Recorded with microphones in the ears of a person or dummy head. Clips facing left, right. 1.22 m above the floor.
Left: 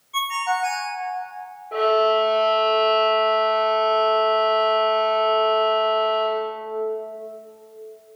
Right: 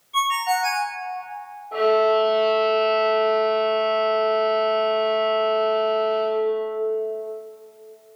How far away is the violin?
About 3.5 m.